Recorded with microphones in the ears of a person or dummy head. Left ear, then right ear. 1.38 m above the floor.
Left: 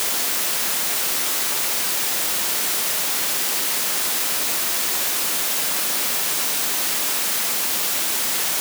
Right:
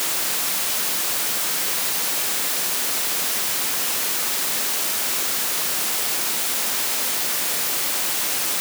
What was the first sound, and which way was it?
Only background noise.